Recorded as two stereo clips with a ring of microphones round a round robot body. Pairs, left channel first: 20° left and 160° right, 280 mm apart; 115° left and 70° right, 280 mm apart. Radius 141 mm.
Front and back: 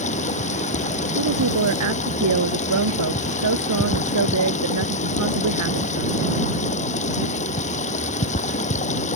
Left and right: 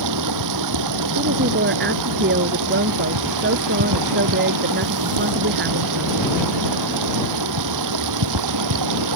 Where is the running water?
45° right.